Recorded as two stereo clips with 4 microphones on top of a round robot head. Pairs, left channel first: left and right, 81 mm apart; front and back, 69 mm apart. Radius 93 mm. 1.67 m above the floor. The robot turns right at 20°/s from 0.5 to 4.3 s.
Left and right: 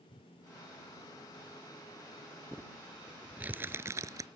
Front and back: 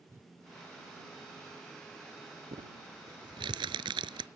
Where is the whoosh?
120° left.